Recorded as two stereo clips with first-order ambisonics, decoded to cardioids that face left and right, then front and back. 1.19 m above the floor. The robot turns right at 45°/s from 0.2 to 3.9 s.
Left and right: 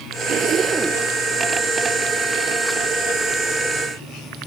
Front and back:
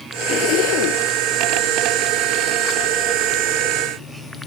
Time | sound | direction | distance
0.2 | a zipper | 40° right | ?